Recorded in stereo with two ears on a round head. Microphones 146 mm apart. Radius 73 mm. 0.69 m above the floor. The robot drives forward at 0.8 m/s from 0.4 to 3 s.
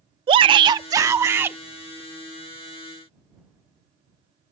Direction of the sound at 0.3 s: 30° right (ahead or behind).